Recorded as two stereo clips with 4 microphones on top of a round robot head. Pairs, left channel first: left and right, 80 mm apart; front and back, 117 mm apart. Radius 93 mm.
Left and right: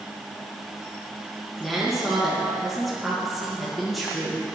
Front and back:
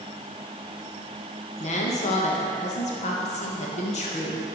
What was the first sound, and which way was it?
A woman speaking, straight ahead.